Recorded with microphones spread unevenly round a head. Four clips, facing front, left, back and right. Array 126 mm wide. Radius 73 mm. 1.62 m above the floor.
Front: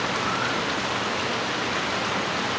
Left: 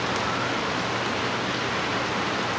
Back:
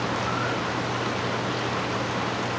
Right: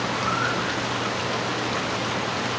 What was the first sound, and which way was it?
Only background noise.